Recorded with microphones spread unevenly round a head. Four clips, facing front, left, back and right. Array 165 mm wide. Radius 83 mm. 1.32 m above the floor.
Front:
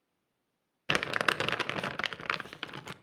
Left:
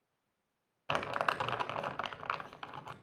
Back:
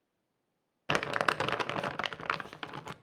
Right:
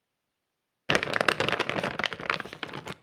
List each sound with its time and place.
0.9 s crumpling: 85° right, 0.7 m